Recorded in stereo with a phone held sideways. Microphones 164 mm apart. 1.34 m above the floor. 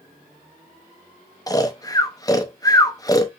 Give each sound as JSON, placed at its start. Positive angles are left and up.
{"t": 1.5, "sound": "snoring", "side_deg": 20, "distance_m": 0.5}